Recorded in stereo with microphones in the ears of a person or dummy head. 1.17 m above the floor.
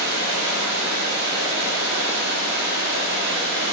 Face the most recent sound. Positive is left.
turn(degrees=-75)  # may be behind; listen again after turning